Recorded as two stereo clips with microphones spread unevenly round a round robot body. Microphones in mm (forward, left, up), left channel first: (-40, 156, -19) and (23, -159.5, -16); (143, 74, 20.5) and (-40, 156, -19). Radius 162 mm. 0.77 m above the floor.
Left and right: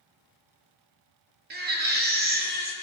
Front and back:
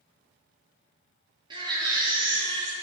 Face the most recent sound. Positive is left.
turn(degrees=-140)